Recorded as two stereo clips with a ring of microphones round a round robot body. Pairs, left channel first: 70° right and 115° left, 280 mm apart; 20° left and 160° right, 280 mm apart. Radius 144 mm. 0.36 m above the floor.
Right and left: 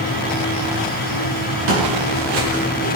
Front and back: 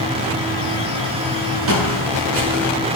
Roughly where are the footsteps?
Behind.